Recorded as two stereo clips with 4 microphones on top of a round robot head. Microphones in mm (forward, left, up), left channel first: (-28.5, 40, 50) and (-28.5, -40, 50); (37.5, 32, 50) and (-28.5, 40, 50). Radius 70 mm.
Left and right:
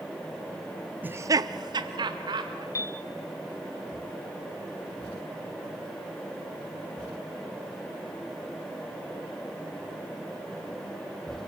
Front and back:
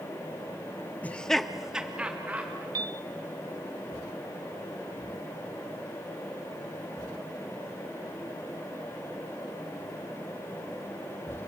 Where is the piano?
145° left, 0.6 m.